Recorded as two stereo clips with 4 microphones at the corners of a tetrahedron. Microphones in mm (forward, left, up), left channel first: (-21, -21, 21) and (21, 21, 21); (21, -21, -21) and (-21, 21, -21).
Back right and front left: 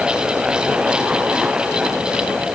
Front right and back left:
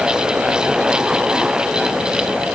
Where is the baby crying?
No baby crying in this recording.